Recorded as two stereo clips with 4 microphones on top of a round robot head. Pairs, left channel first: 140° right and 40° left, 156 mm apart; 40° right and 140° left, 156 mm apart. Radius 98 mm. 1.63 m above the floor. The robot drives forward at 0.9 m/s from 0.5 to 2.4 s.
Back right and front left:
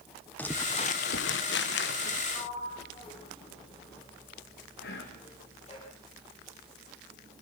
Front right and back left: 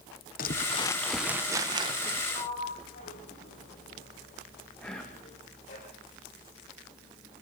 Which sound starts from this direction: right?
A sliding door, at 2.3 s.